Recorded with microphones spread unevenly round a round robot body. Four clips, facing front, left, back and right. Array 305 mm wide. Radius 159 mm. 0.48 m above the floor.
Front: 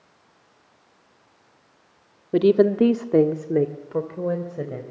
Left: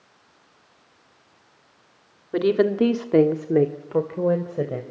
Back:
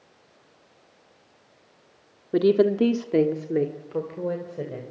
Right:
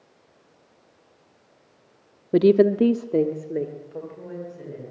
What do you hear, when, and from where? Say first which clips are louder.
2.3 s a woman speaking: right 3 dB, front 2 dB; 65° right, 1.5 m; by 4.8 s 80° left, 3 m